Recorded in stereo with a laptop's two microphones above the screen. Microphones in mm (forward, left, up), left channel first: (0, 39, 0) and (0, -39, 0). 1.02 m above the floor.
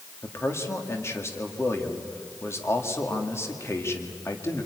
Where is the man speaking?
35° left (ahead or behind), 2 m.